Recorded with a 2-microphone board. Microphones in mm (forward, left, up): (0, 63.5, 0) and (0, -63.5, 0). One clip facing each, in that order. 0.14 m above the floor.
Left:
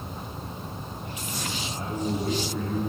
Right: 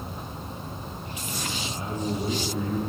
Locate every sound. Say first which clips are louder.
1.6 s a man speaking: left 1 dB; centre (ahead or behind), 3.5 m; by 2.8 s 20° right (ahead or behind), 3.5 m